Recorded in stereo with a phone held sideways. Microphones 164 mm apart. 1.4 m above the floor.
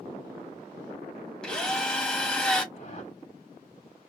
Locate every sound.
1.4 s a drill: 5° left (ahead or behind), 1.4 m
2.7 s a whoosh: 50° left (ahead or behind), 1.0 m